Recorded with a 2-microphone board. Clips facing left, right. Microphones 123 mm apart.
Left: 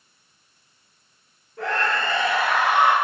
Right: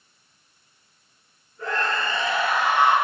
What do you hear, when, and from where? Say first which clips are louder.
1.6 s a scream: left 2 dB; 80° left, 7 m